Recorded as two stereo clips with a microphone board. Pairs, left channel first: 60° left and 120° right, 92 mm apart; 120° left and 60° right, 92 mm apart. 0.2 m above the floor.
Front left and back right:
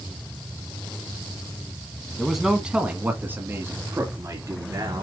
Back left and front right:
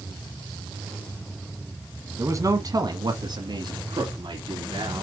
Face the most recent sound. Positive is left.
turn(degrees=-75)